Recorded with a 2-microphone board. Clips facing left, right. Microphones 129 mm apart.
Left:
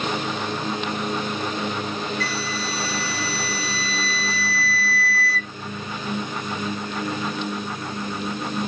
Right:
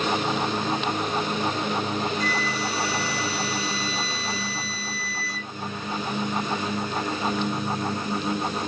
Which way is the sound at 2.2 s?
20° right (ahead or behind).